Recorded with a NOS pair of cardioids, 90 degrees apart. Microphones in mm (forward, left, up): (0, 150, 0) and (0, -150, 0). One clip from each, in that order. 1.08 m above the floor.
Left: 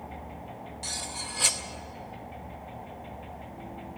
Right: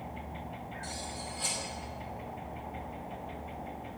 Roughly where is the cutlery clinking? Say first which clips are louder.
Left 7 dB; ahead left.